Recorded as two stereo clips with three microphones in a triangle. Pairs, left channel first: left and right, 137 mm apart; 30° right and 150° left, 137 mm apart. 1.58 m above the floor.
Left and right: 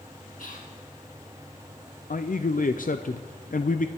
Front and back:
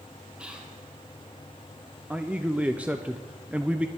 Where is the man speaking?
70° left, 0.5 m.